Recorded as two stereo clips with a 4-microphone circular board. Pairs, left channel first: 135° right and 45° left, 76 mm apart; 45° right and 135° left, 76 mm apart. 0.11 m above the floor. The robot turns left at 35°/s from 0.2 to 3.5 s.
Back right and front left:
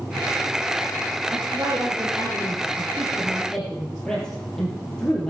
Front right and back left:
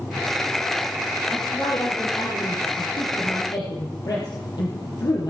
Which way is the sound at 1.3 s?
20° left.